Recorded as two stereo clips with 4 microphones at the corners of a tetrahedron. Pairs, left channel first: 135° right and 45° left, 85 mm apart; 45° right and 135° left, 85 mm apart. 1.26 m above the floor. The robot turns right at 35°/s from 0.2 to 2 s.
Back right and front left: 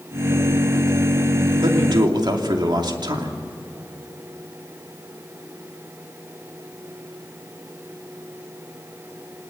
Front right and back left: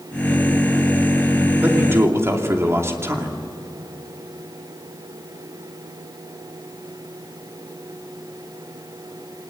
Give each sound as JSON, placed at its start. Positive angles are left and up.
{"t": 1.6, "sound": "a man speaking", "azimuth_deg": 65, "distance_m": 2.5}